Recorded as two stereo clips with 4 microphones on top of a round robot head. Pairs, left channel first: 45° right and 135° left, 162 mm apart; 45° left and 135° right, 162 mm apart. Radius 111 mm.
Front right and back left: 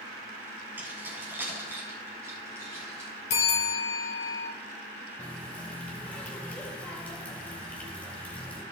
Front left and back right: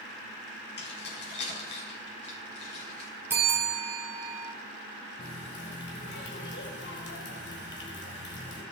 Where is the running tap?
40° left, 3 m.